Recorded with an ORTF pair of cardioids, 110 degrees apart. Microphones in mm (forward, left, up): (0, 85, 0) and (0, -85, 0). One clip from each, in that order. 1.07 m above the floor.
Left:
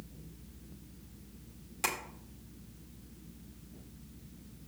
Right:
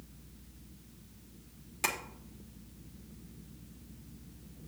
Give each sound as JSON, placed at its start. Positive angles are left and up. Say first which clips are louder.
{"t": 1.8, "sound": "tapping", "louder": "right 1 dB", "azimuth_deg": 0, "distance_m": 2.0}